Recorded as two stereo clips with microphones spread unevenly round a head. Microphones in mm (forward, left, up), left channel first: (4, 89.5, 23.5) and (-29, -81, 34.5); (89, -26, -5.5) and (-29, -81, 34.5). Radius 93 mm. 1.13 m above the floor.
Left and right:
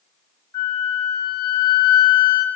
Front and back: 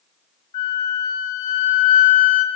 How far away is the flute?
About 1.0 m.